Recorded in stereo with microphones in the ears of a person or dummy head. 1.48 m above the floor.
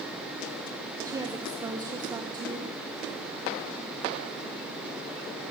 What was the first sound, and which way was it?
A woman speaking, 20° right (ahead or behind).